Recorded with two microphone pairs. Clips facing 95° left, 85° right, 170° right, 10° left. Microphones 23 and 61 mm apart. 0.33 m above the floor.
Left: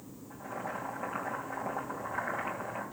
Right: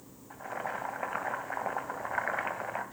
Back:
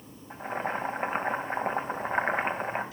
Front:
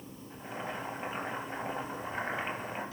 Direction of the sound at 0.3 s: 135° right.